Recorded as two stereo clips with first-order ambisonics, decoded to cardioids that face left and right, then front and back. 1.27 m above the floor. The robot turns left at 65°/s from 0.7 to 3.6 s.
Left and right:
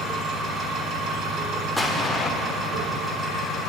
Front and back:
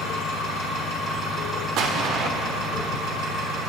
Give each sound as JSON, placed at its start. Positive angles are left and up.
{"t": 0.0, "sound": "an engine running", "azimuth_deg": -25, "distance_m": 3.0}
{"t": 1.8, "sound": "an explosion", "azimuth_deg": -175, "distance_m": 1.1}